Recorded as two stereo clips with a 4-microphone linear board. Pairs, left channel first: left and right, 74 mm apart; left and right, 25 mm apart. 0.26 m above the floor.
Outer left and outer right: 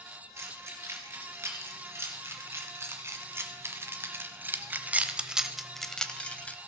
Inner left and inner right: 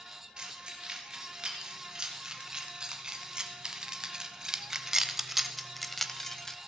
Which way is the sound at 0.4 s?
35° right (ahead or behind).